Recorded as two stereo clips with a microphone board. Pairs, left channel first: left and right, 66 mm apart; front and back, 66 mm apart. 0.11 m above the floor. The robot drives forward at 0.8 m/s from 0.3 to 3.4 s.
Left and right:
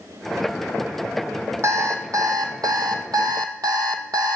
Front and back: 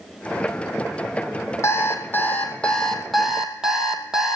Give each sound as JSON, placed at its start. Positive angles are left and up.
{"t": 1.6, "sound": "an alarm clock", "azimuth_deg": -45, "distance_m": 1.8}